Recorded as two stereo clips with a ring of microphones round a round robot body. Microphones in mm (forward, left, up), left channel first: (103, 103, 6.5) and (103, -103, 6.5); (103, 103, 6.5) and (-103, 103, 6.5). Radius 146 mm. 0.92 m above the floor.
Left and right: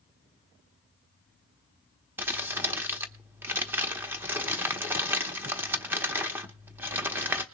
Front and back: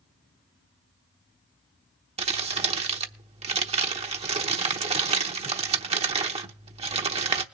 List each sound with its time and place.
2.2 s crumpling: 160° right, 0.9 m